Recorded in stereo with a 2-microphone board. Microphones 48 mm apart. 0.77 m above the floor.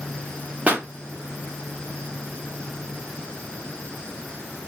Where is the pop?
30° right (ahead or behind), 0.9 m.